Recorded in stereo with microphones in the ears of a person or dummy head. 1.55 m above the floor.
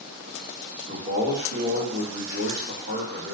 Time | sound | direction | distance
0.9 | a man speaking | 90° right | 1.1 m